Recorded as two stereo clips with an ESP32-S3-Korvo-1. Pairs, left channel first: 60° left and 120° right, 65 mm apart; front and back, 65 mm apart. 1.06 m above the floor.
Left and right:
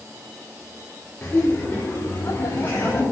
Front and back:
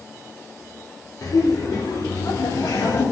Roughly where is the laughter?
Ahead.